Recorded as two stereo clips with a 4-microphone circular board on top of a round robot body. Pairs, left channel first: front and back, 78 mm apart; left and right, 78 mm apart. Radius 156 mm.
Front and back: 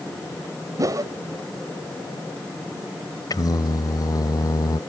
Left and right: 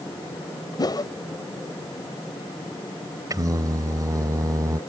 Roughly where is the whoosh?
Behind left.